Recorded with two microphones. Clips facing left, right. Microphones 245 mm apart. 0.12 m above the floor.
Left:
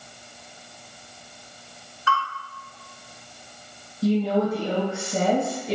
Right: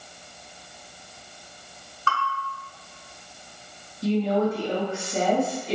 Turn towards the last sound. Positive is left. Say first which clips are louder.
# left 1 dB
turn(degrees=35)  # may be behind; listen again after turning